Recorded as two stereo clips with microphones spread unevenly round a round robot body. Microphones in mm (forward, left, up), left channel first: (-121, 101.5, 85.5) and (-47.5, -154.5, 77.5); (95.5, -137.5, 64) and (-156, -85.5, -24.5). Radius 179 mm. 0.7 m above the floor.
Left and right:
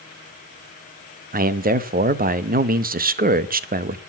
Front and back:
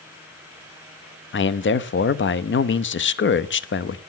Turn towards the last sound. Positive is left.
turn(degrees=-55)